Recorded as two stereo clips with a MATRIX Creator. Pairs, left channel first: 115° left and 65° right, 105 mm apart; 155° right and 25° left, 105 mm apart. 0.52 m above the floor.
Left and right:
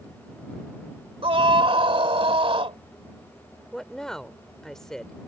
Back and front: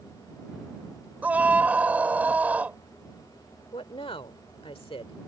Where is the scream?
50° right.